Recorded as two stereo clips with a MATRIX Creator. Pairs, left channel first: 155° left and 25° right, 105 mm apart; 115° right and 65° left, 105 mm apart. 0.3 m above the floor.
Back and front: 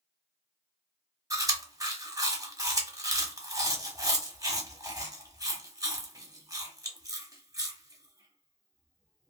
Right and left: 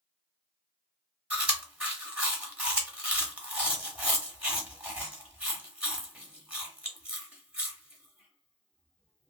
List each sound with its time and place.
1.3 s chewing: straight ahead, 0.9 m